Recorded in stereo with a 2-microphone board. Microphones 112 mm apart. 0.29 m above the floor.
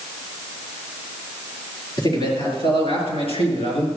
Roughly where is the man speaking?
Left.